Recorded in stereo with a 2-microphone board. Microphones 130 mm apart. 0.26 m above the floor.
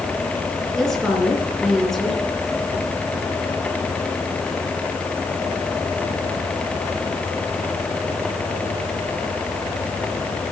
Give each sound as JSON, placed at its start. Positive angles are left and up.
{"t": 0.8, "sound": "a woman speaking", "side_deg": 5, "distance_m": 4.0}